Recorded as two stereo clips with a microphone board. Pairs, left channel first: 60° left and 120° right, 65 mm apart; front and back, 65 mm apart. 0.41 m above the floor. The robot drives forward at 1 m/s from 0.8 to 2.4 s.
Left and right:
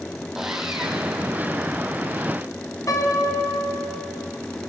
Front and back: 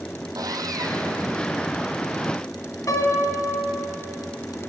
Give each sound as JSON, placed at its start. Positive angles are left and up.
{"t": 0.3, "sound": "sawing", "azimuth_deg": 155, "distance_m": 2.5}
{"t": 2.9, "sound": "a piano", "azimuth_deg": 30, "distance_m": 4.0}